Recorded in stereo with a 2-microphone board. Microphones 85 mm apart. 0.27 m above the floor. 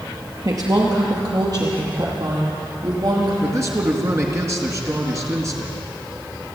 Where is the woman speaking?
40° right (ahead or behind), 5 m; by 3.3 s 50° right (ahead or behind), 8.5 m.